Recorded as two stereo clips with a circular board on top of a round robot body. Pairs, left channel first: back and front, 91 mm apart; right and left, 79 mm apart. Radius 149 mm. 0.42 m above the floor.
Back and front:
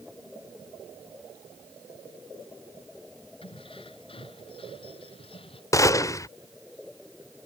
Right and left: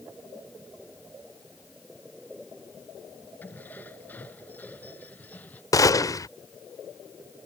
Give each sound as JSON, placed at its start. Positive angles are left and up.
{"t": 3.4, "sound": "keys jangling", "azimuth_deg": -155}
{"t": 5.7, "sound": "a gunshot", "azimuth_deg": -130}